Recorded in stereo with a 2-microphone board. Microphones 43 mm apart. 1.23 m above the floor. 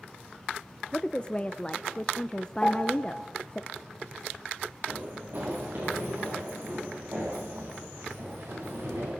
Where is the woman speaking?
25° left (ahead or behind), 0.6 m.